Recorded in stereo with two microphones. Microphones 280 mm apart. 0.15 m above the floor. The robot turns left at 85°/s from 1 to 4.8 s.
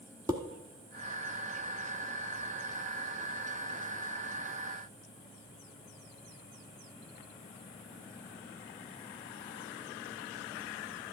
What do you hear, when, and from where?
0.3 s dishes clattering: 15° right (ahead or behind), 0.9 m